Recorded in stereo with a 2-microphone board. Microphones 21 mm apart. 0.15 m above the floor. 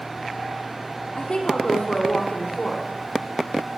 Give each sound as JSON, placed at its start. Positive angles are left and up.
{"t": 1.2, "sound": "a woman speaking", "side_deg": 55, "distance_m": 5.0}